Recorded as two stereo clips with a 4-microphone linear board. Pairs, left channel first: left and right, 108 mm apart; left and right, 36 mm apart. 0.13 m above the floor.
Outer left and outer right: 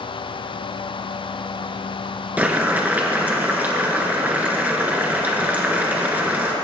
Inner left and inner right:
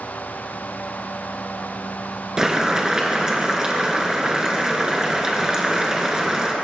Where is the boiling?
15° right (ahead or behind), 1.6 m.